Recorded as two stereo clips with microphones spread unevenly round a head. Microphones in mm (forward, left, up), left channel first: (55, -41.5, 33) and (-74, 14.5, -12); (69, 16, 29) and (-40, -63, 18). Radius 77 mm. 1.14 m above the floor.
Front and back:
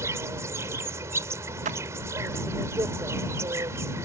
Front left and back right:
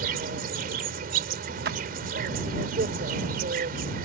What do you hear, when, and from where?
0.0 s an insect: 125° right
1.6 s a clap: 165° right